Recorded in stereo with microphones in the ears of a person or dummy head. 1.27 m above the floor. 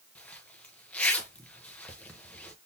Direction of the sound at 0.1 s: 10° left (ahead or behind).